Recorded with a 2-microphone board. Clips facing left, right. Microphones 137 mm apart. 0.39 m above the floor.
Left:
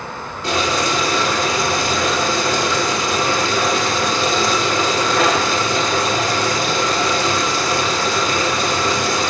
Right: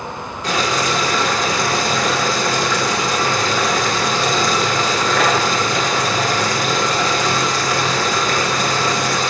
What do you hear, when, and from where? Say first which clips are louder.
0.4 s boiling: even; 30° left (ahead or behind), 1.0 m